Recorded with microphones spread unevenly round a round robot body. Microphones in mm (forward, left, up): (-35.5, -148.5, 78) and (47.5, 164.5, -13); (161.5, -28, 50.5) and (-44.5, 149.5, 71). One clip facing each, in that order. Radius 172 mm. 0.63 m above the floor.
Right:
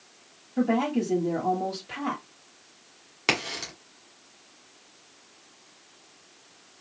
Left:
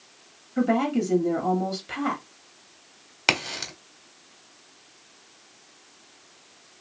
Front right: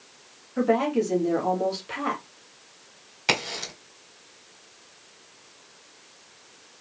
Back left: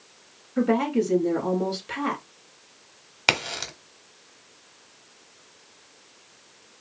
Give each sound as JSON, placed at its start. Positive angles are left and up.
{"t": 0.6, "sound": "a woman speaking", "azimuth_deg": 80, "distance_m": 1.7}
{"t": 3.3, "sound": "a crack", "azimuth_deg": 140, "distance_m": 1.2}